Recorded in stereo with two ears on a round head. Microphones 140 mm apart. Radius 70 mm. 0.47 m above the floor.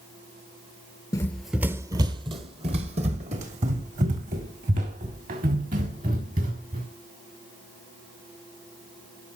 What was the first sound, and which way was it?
Running footsteps, 20° left (ahead or behind).